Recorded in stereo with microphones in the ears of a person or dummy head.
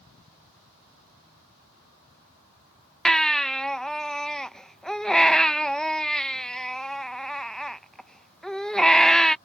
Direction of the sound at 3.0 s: 5° left (ahead or behind).